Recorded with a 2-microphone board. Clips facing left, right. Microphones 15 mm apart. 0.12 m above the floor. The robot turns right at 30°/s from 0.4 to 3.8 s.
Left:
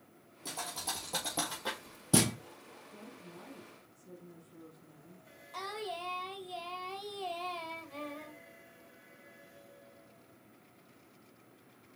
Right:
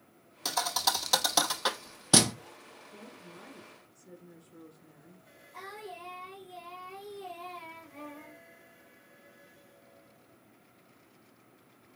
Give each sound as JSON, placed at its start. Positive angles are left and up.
{"t": 0.5, "sound": "a thud", "side_deg": -80, "distance_m": 0.9}
{"t": 2.9, "sound": "a woman speaking", "side_deg": -35, "distance_m": 1.8}
{"t": 5.5, "sound": "singing", "side_deg": 45, "distance_m": 2.5}